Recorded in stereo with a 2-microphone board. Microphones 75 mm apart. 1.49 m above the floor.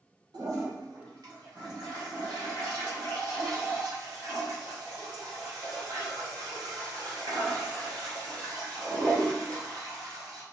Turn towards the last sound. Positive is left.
turn(degrees=-80)